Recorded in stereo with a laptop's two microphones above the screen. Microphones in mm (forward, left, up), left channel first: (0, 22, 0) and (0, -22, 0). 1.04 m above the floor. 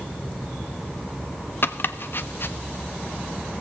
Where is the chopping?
55° left (ahead or behind), 0.5 m.